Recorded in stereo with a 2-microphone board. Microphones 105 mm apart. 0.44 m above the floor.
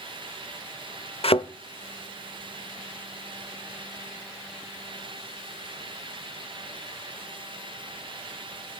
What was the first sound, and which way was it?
A thud, 65° left (ahead or behind).